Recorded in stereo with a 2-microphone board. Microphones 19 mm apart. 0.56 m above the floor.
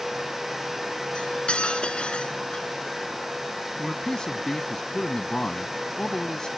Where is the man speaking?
40° left (ahead or behind).